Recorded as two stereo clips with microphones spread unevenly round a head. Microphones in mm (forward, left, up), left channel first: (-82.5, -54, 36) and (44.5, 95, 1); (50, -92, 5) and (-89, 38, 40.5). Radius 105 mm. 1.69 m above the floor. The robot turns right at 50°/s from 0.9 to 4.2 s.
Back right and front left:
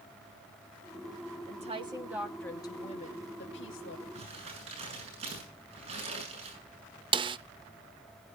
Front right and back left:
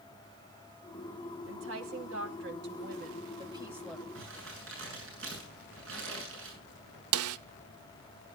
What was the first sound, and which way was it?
A woman speaking, 100° left.